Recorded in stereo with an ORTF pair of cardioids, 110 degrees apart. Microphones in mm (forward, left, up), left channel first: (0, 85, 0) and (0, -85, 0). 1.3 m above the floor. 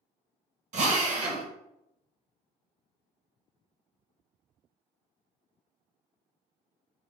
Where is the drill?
50° right, 1.4 m.